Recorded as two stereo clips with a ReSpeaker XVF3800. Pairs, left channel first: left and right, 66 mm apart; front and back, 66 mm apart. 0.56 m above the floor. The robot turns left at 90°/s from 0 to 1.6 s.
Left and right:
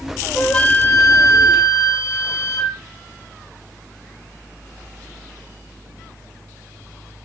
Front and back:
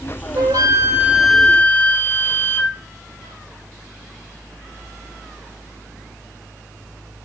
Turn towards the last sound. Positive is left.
turn(degrees=65)